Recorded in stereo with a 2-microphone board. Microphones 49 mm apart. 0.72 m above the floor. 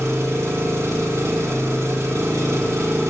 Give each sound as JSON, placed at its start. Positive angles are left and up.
{"t": 0.0, "sound": "an engine running", "side_deg": -75, "distance_m": 0.9}